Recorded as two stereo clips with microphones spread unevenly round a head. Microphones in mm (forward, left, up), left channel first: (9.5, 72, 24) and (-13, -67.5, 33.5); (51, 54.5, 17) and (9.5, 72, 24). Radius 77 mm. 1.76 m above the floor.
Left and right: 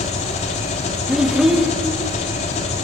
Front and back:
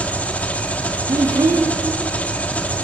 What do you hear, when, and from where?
0.0 s an engine running: 35° left, 2.5 m
1.1 s a child speaking: 175° left, 1.8 m